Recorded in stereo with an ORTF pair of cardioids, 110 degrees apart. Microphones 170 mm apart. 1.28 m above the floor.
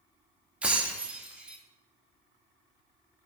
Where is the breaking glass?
5° right, 1.5 m.